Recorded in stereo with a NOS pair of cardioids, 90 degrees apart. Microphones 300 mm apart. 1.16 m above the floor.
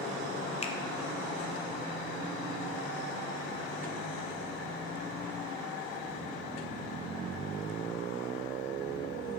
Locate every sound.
0.6 s a finger snap: 20° left, 0.5 m